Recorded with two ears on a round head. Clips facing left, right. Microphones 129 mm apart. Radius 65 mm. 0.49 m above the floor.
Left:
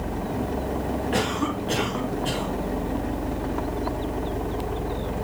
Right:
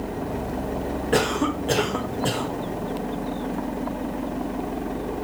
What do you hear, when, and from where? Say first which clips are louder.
1.1 s a cough: right 6 dB; 50° right (ahead or behind), 2.5 m